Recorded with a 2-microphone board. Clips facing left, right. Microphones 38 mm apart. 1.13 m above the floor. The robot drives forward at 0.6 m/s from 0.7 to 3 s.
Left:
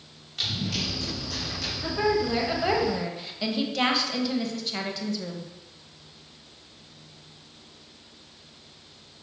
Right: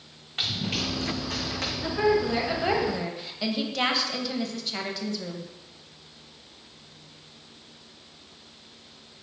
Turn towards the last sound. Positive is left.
turn(degrees=0)  # may be behind; listen again after turning